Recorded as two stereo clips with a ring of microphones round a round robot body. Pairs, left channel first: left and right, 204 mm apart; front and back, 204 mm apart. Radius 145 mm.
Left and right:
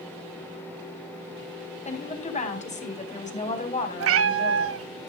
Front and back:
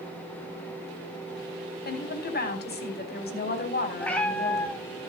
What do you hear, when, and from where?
1.9 s a woman speaking: 35° left, 4.5 m
4.0 s a cat meowing: 85° right, 0.7 m